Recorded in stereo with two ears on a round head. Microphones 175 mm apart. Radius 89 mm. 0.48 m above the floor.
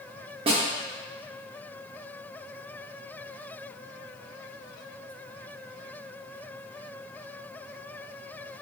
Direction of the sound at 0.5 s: 30° right (ahead or behind).